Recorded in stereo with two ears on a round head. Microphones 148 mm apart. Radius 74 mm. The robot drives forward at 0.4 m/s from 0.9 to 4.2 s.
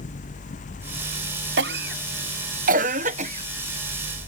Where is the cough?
75° right (ahead or behind); by 4.3 s 35° right (ahead or behind).